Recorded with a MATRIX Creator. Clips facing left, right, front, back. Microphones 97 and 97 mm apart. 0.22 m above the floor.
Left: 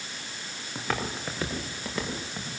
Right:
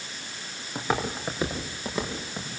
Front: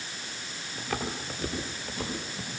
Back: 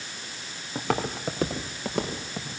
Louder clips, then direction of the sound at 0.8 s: Right 4 dB, back 6 dB; 160° right.